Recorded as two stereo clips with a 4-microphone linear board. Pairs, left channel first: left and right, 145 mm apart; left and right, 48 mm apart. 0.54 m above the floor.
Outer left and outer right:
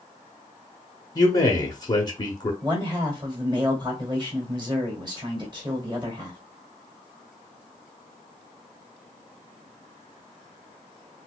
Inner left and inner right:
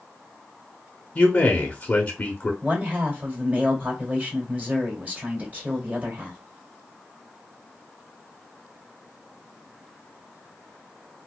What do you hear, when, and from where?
1.1 s a man speaking: 30° left (ahead or behind), 0.8 m
2.6 s a man speaking: 30° right (ahead or behind), 1.8 m